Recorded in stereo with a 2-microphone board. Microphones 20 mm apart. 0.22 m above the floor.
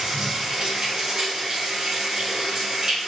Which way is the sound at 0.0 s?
45° right (ahead or behind).